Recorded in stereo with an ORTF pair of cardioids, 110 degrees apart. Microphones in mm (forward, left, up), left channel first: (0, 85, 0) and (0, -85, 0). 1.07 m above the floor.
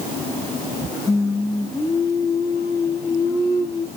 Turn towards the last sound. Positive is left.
turn(degrees=15)